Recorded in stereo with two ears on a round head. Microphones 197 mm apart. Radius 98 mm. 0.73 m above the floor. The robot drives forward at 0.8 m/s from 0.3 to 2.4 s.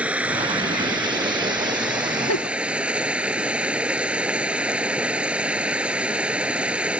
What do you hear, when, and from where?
0.0 s running water: 5° right (ahead or behind)
2.3 s a giggle: 80° left